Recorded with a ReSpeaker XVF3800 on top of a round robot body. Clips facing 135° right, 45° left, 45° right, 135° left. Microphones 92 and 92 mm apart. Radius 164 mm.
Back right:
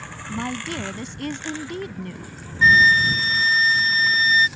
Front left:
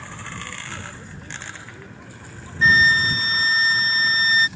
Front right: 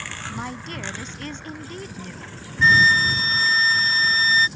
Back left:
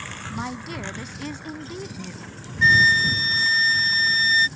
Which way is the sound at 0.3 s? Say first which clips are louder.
Back right 11 dB, back left 2 dB; 140° right.